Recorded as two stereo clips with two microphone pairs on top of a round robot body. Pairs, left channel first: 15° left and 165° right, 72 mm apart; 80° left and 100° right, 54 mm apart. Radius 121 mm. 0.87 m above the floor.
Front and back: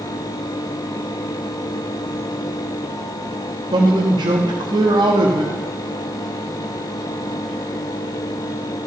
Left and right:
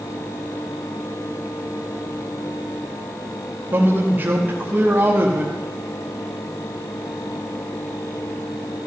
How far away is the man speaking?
About 1.4 m.